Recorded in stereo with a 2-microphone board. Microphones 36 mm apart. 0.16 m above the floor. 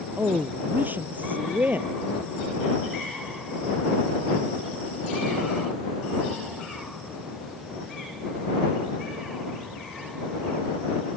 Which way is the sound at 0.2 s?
55° right (ahead or behind).